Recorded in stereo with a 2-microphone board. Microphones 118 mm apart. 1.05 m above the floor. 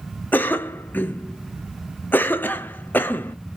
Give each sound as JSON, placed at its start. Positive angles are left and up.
{"t": 0.3, "sound": "a cough", "side_deg": 15, "distance_m": 0.6}